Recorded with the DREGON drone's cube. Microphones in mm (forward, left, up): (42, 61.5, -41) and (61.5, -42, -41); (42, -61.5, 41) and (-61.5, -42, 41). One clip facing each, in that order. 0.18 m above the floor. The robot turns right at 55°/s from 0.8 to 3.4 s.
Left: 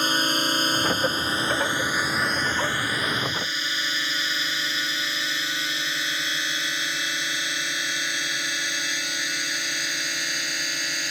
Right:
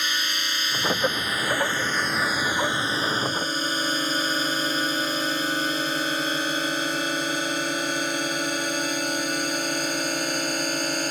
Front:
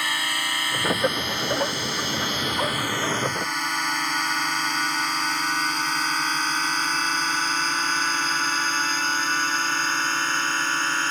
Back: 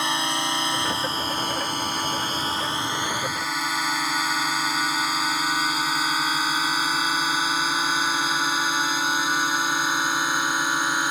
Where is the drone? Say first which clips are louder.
Left 6 dB, back 3 dB; 120° left; by 11.1 s 115° right.